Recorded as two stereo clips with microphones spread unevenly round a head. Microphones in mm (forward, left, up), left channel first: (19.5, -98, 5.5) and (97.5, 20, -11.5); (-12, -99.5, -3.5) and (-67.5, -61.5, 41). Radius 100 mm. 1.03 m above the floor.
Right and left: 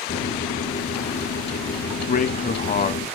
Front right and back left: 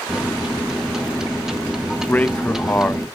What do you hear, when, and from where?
0.1 s a microwave: 130° right, 1.0 m
2.1 s a man speaking: 90° right, 1.0 m